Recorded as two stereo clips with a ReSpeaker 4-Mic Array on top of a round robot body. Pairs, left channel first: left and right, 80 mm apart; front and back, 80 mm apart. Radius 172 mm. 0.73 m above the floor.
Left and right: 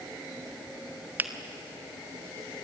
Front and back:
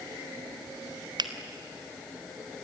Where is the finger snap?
155° right, 1.6 m.